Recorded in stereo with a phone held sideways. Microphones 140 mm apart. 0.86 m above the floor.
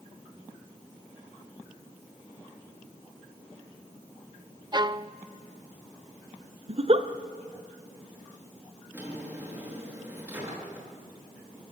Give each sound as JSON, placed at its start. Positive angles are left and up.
{"t": 4.7, "sound": "a violin", "side_deg": -30, "distance_m": 0.5}
{"t": 6.7, "sound": "a giggle", "side_deg": -45, "distance_m": 1.0}
{"t": 8.9, "sound": "a drawer", "side_deg": -15, "distance_m": 8.0}